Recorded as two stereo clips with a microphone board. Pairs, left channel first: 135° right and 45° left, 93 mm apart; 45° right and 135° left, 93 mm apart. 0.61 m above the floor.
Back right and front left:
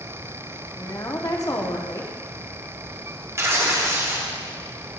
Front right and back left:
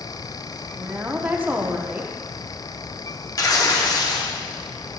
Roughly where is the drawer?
I don't hear a drawer.